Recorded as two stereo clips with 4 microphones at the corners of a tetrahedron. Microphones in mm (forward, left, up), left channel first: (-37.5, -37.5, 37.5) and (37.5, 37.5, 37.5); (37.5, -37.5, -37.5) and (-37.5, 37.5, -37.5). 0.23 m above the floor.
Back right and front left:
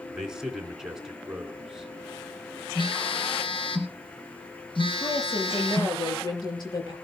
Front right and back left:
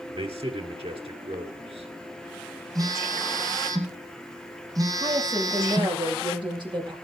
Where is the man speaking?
130° left, 2.5 m.